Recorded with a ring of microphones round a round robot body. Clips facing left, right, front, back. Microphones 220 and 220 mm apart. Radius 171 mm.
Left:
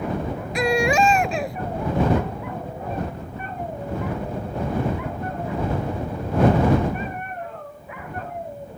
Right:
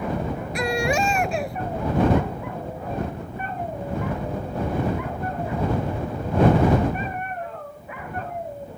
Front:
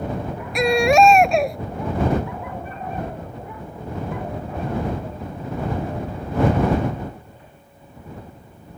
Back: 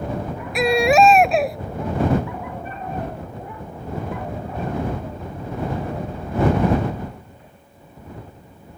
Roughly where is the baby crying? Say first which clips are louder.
Left 4 dB, even; left.